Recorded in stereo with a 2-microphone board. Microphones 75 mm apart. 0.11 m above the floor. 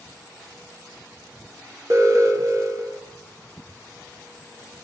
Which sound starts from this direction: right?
An alarm, at 1.9 s.